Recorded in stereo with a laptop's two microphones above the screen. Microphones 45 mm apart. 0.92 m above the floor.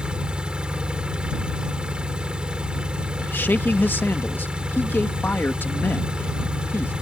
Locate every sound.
0.0 s an engine running: 20° right (ahead or behind)
3.2 s a man speaking: 50° left (ahead or behind)